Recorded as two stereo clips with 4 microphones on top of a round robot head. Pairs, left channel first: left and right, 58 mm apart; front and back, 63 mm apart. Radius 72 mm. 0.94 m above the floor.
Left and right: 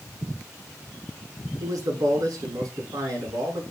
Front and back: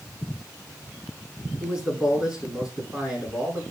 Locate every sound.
1.6 s a man speaking: 110° right, 2.5 m